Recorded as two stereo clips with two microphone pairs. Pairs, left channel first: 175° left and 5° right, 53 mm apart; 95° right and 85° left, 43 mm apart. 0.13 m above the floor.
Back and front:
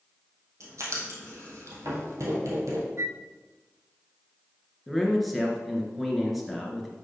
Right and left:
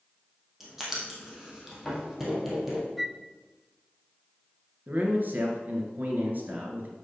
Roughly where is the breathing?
I don't hear breathing.